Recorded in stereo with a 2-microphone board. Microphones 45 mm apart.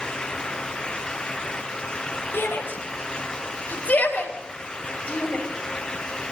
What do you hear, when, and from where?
2.3 s a shout: 55° left (ahead or behind), 5 m; by 5.5 s 25° left (ahead or behind), 6 m